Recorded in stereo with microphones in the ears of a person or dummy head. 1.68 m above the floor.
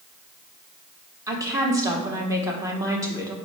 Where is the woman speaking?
20° right (ahead or behind), 1.4 m.